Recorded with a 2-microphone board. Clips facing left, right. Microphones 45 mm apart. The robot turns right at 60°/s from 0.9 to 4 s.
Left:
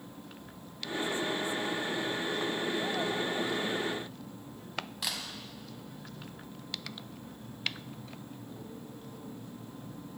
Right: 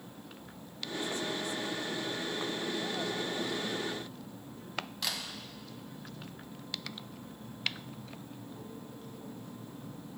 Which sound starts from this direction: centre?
A camera shutter, at 5.0 s.